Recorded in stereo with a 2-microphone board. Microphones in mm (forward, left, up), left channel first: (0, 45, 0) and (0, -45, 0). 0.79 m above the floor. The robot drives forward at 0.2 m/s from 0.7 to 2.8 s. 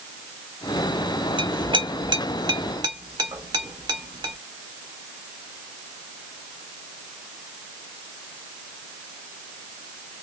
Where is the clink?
65° right (ahead or behind), 0.8 m; by 4.3 s 50° right (ahead or behind), 0.8 m.